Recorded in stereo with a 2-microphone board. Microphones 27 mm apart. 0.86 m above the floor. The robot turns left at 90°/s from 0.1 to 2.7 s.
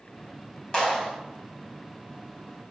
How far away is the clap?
About 3.5 m.